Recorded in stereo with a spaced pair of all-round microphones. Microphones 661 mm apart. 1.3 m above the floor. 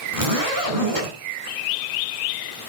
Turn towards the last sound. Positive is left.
turn(degrees=-55)  # may be behind; listen again after turning